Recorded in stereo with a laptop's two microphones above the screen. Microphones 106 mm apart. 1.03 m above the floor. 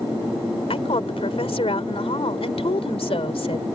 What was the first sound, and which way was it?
A woman speaking, 65° left (ahead or behind).